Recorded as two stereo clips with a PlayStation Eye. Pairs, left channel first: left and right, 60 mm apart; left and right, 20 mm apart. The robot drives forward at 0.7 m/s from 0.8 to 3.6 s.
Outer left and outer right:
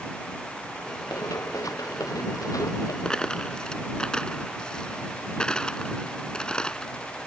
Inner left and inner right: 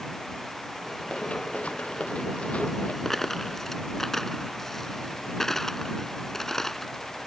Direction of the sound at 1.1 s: 85° left.